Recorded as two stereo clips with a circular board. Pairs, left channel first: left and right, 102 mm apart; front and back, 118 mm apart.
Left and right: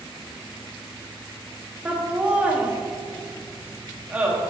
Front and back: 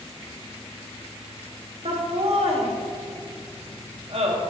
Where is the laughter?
165° right, 1.5 m.